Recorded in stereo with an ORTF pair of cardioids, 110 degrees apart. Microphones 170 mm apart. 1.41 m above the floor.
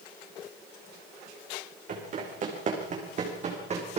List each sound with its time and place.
1.9 s running footsteps: 50° right, 6 m; by 4.0 s 40° right, 5 m